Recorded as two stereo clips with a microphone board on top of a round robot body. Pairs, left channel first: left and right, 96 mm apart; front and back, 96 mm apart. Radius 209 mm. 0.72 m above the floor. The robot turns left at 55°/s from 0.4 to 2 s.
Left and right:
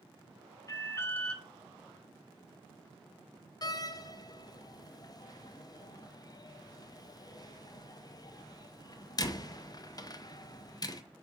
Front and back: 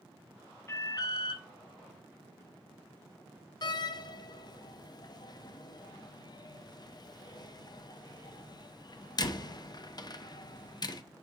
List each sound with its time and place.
0.7 s an alarm: 50° left, 0.8 m; by 1.4 s 10° left, 0.8 m
3.6 s a door slam: 45° left, 0.6 m